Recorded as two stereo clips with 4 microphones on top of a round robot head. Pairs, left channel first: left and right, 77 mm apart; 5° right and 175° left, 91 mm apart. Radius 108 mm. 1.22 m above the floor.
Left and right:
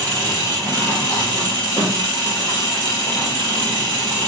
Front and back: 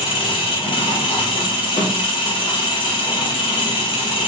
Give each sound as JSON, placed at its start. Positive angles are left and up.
{"t": 0.0, "sound": "an engine running", "azimuth_deg": 25, "distance_m": 1.6}